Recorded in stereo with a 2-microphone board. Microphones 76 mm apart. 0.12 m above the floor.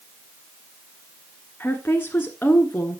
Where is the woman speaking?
25° left (ahead or behind), 1.4 m.